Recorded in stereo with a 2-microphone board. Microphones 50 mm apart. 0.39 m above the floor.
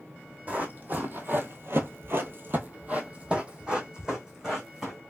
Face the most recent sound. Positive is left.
turn(degrees=-10)  # may be behind; listen again after turning